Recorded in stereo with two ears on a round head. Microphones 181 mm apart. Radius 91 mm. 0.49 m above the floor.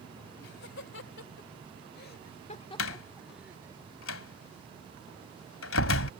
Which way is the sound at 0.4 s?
65° left (ahead or behind).